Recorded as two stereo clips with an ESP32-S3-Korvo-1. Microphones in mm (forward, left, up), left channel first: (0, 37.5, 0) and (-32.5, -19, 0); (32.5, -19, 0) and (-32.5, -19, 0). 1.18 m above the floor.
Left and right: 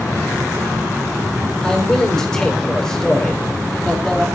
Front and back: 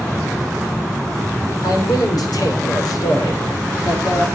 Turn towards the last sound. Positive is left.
turn(degrees=-20)